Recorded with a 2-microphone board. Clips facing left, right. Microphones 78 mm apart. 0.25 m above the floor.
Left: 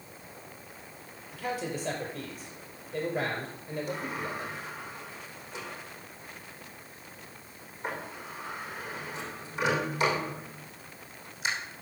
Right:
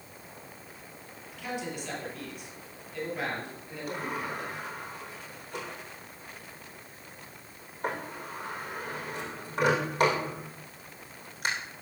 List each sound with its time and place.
1.3 s a man speaking: 40° left (ahead or behind), 4.5 m
3.9 s a sliding door: 55° right (ahead or behind), 4.5 m